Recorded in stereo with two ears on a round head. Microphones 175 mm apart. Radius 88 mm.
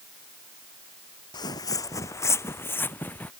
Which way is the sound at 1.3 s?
20° left (ahead or behind).